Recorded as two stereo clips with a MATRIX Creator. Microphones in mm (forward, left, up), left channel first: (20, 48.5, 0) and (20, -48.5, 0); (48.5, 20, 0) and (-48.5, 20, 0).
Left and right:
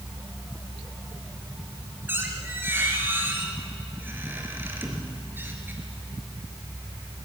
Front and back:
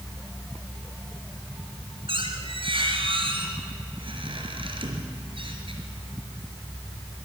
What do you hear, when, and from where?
2.1 s a squeak: 160° right, 3.5 m